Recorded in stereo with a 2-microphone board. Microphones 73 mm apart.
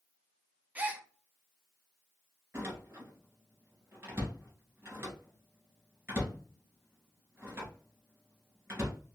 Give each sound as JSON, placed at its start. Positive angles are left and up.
{"t": 0.8, "sound": "a gasp", "side_deg": -20, "distance_m": 0.5}
{"t": 2.5, "sound": "a door slam", "side_deg": -30, "distance_m": 2.0}